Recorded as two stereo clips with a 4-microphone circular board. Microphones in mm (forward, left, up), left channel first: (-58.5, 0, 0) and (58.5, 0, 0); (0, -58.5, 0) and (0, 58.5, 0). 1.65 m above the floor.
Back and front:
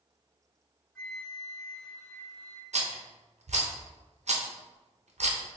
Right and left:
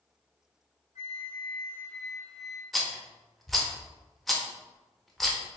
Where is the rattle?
Straight ahead, 0.5 m.